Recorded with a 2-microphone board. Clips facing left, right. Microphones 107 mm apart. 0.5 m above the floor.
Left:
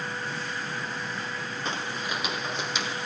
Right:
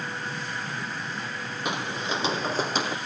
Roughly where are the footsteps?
Centre.